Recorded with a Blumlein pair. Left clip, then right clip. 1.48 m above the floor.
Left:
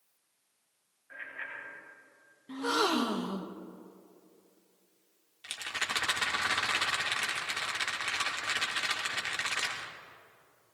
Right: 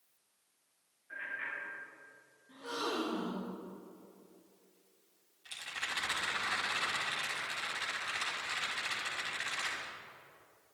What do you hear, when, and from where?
1.1 s a bicycle bell: 15° left, 5.5 m
2.5 s a gasp: 55° left, 1.2 m
5.4 s a rattle: 45° left, 2.5 m